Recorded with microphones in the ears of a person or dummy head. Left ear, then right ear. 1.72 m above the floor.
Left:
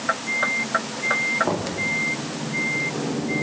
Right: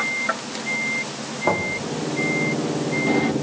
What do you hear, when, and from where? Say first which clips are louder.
1.4 s knocking: right 4 dB; 80° right, 3.5 m